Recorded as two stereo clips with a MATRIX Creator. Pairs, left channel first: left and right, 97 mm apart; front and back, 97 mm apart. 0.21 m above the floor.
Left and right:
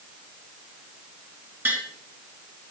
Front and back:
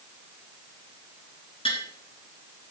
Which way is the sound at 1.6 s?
20° right.